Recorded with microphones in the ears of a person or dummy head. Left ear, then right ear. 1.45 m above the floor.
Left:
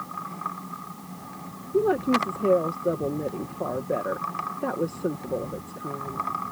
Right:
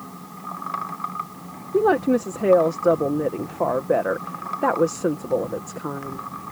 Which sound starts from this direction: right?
A woman speaking, at 1.7 s.